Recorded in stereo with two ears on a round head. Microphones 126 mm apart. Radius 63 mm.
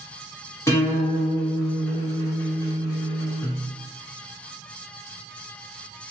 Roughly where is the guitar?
Left.